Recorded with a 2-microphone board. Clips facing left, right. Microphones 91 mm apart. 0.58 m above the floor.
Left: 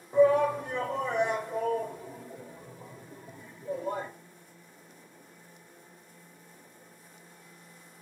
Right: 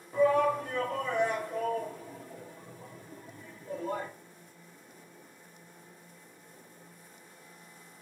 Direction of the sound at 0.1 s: 20° left (ahead or behind).